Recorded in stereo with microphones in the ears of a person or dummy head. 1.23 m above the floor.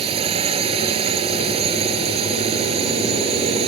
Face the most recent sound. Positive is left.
turn(degrees=-30)  # may be behind; listen again after turning